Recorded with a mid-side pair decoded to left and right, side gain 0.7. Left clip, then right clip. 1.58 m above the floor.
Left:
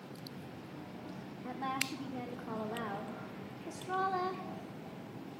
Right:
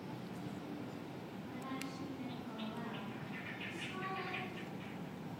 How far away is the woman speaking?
About 2.5 m.